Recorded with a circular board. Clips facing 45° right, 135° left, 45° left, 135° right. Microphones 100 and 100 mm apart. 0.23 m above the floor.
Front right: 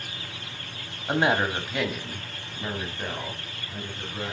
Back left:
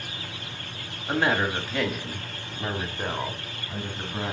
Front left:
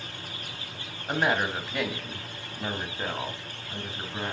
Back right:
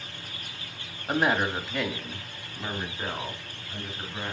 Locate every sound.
1.1 s a woman speaking: 60° right, 1.3 m; by 4.3 s 105° left, 2 m